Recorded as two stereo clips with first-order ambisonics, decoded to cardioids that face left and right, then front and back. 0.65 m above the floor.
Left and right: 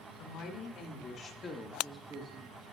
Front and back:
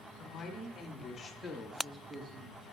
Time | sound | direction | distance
0.2 | a woman speaking | 55° left | 2.5 m